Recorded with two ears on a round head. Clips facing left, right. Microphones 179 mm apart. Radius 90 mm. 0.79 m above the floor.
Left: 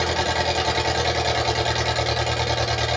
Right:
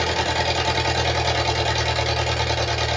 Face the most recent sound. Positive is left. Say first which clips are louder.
# even
turn(degrees=0)  # may be behind; listen again after turning